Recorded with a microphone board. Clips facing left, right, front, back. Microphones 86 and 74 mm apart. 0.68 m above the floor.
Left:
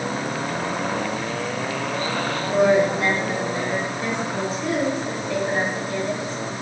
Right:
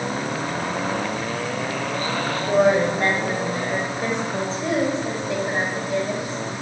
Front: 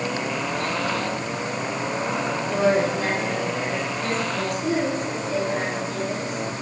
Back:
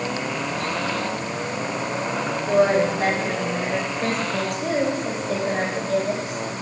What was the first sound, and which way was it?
A woman speaking, 130° right.